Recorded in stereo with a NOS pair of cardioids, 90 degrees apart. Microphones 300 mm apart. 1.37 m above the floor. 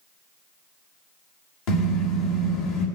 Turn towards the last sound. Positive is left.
turn(degrees=65)